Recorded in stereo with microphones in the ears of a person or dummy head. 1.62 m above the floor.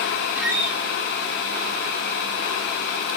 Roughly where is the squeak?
Centre.